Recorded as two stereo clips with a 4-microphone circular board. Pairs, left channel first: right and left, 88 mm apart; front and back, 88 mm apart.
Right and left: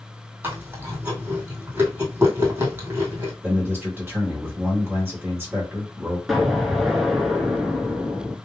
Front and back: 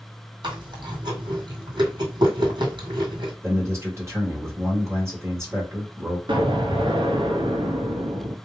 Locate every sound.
0.4 s chewing: 155° left, 1.8 m
3.4 s a man speaking: 140° left, 2.0 m
6.3 s an explosion: 175° left, 0.9 m